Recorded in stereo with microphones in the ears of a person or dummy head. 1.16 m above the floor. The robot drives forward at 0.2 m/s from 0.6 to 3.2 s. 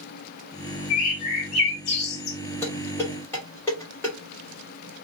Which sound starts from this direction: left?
A bird, at 0.9 s.